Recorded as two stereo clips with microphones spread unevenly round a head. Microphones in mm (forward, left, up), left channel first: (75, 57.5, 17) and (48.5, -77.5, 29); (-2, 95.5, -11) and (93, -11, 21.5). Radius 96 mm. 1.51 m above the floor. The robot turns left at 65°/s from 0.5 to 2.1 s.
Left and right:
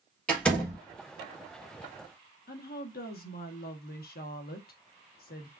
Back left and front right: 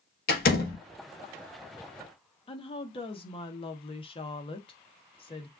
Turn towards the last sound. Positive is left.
turn(degrees=75)